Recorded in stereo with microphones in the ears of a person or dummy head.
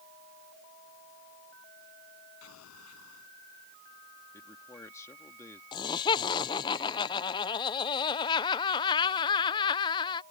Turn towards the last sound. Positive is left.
turn(degrees=20)  # may be behind; listen again after turning